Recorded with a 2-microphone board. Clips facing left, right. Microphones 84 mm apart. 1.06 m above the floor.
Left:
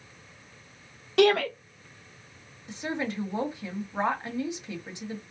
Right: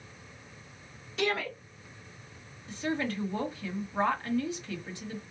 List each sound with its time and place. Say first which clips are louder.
1.2 s a shout: left 10 dB; 70° left (ahead or behind), 0.8 m
2.7 s a woman speaking: even; 20° left (ahead or behind), 1.2 m